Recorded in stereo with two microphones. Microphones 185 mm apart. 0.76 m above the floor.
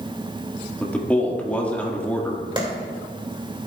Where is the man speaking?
10° left (ahead or behind), 1.5 m.